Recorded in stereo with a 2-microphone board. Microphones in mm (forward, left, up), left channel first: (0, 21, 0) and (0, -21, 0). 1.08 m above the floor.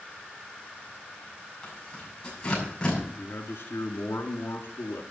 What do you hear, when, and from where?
1.6 s tearing paper: 15° left (ahead or behind), 7 m
3.2 s a man speaking: 80° left, 2 m